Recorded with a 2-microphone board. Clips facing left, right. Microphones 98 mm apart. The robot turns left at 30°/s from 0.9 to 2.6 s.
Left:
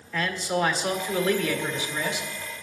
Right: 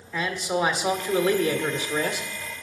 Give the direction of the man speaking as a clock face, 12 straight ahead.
12 o'clock.